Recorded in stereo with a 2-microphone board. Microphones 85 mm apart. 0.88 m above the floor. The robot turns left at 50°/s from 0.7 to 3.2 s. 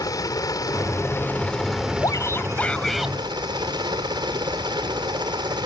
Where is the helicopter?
55° left; by 5.7 s 70° right.